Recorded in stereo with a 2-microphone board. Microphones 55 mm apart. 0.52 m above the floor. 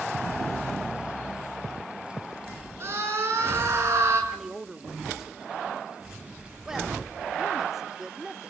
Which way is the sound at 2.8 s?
50° right (ahead or behind).